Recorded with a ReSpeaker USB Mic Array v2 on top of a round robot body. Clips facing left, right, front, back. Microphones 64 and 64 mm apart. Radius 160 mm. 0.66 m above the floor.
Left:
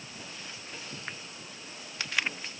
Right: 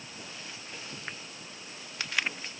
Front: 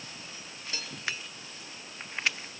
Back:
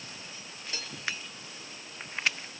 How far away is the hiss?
I don't hear a hiss.